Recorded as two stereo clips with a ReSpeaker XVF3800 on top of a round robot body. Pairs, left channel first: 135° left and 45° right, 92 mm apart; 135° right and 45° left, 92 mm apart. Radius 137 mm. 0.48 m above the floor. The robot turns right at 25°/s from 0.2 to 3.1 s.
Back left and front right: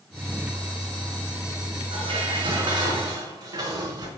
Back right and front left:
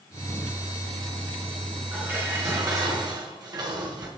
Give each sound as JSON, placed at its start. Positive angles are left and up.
{"t": 1.9, "sound": "dishes clattering", "azimuth_deg": -25, "distance_m": 5.0}